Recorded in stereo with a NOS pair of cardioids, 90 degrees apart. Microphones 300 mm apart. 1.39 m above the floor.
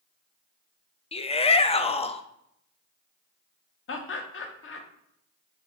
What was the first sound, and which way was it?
A shout, 20° left.